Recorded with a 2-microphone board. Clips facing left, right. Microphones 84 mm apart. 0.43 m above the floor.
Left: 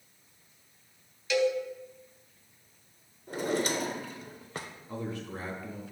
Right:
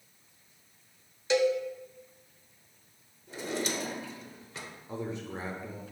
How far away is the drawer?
About 0.7 m.